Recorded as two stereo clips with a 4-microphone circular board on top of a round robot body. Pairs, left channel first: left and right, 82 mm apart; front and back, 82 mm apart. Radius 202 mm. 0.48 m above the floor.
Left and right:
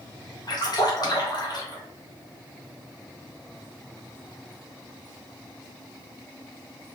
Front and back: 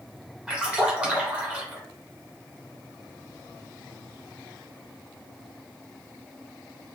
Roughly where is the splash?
Left.